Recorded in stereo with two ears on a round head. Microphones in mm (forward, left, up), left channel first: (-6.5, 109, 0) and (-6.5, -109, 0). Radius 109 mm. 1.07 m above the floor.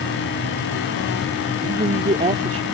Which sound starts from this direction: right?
A man speaking, at 1.6 s.